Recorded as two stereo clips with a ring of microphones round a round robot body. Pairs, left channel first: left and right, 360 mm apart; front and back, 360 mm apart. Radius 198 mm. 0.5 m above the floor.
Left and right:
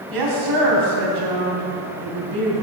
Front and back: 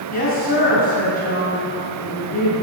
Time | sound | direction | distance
0.1 | a woman speaking | 70° right | 3 m